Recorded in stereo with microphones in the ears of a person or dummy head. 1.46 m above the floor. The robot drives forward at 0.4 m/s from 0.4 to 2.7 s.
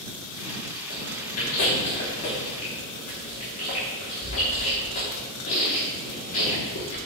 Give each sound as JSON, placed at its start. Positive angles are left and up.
{"t": 0.9, "sound": "chewing", "side_deg": 40, "distance_m": 2.5}